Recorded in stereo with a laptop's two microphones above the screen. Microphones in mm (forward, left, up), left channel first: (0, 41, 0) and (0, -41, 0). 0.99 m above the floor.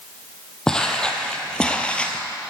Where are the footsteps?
10° left (ahead or behind), 1.5 m; by 2.2 s 15° left (ahead or behind), 1.0 m.